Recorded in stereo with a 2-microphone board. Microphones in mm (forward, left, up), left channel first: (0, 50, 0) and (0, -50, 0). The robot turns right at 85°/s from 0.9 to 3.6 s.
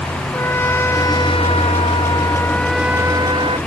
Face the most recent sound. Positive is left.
turn(degrees=-105)